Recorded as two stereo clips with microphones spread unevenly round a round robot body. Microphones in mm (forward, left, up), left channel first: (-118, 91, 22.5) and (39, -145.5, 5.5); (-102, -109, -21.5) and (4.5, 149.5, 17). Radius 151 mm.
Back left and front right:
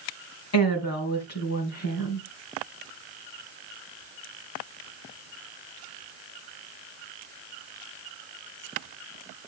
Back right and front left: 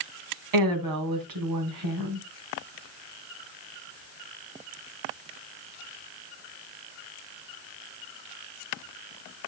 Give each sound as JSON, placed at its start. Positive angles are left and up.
{"t": 0.5, "sound": "a woman speaking", "azimuth_deg": 80, "distance_m": 3.0}